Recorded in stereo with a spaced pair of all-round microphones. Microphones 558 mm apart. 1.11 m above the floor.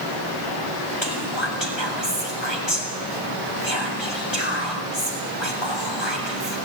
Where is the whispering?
50° left (ahead or behind), 7 m.